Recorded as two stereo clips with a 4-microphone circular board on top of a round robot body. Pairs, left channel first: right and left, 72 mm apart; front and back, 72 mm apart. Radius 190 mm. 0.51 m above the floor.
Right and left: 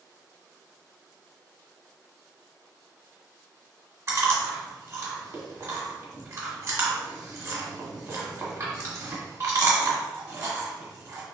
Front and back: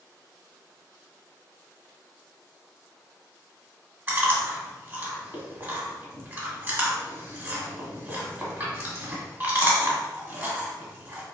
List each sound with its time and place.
4.1 s chewing: 130° left, 1.7 m